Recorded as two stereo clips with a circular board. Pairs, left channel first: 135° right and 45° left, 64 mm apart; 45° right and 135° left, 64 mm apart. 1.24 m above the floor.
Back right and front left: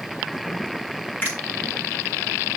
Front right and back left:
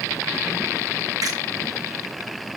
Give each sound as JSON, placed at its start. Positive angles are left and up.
{"t": 1.2, "sound": "a finger snap", "azimuth_deg": 165, "distance_m": 8.5}